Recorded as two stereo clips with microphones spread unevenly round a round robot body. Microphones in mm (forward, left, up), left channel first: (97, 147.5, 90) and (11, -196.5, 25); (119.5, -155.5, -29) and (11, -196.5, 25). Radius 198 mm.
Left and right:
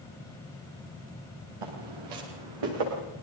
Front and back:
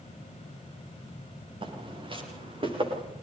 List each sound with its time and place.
1.6 s footsteps: 120° right, 9 m; by 3.0 s 125° right, 11 m